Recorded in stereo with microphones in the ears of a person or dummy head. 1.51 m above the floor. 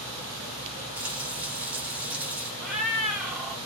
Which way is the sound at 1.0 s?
5° right (ahead or behind).